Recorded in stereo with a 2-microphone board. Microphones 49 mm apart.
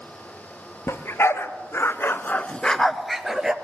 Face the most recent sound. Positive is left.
turn(degrees=-10)  # may be behind; listen again after turning